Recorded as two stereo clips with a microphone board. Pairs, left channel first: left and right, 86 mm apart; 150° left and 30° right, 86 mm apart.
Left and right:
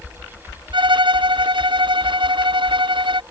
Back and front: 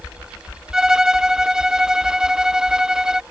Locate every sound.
0.7 s a violin: 115° right